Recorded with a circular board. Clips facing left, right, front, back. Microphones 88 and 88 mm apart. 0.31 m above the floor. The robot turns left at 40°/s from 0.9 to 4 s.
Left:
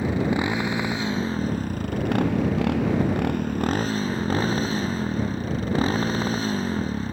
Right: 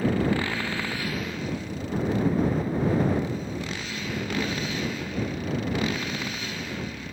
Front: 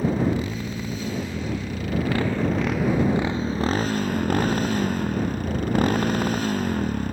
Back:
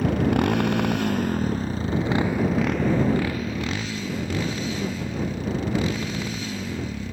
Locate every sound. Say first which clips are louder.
0.0 s a motorcycle: left 1 dB, back 2 dB; 160° left; by 7.1 s 40° left